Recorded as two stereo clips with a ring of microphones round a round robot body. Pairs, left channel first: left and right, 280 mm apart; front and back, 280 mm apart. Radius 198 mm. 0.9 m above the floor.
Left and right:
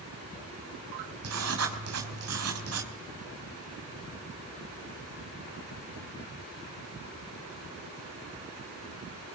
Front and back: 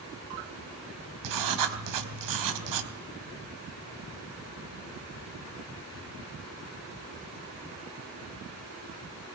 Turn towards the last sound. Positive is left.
turn(degrees=-145)